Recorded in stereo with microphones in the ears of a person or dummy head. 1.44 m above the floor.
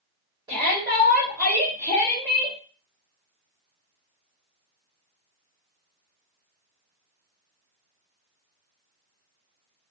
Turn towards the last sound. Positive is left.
turn(degrees=-20)  # may be behind; listen again after turning